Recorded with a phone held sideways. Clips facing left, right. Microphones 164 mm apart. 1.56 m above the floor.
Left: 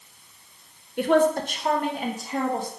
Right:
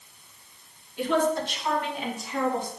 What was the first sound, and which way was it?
A woman speaking, 60° left (ahead or behind).